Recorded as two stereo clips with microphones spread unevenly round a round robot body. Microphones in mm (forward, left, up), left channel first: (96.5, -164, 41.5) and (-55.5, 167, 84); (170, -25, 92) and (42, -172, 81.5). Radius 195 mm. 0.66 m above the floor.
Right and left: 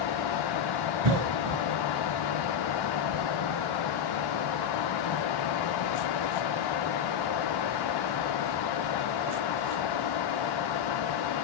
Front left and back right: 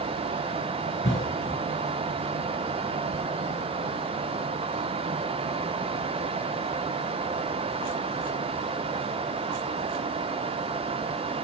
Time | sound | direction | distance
1.0 | a cough | 115° left | 3 m